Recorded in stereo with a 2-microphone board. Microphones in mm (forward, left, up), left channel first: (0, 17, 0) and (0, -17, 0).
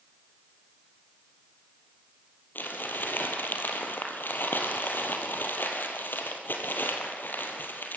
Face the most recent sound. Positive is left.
turn(degrees=75)  # may be behind; listen again after turning